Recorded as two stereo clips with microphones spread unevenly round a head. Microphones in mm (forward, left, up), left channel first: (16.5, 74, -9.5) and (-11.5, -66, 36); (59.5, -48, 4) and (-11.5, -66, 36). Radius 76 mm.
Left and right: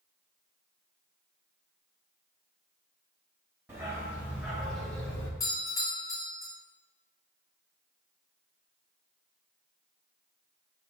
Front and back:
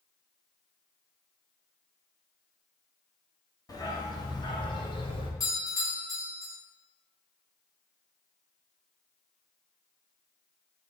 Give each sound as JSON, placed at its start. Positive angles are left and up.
{"t": 3.7, "sound": "a dog barking", "azimuth_deg": -30, "distance_m": 2.0}
{"t": 5.4, "sound": "a doorbell", "azimuth_deg": 20, "distance_m": 2.5}